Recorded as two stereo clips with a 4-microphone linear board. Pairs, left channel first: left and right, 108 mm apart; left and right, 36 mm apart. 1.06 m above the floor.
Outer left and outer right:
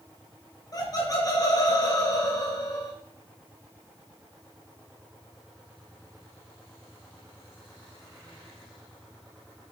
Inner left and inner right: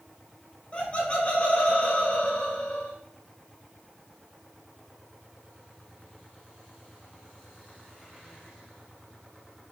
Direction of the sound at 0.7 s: 35° left (ahead or behind).